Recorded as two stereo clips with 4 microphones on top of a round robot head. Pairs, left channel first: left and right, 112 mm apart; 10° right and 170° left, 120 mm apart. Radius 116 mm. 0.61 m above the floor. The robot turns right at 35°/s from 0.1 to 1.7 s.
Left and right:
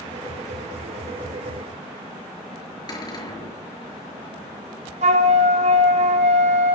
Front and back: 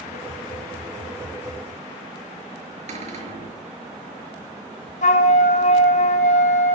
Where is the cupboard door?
145° left, 5.5 m.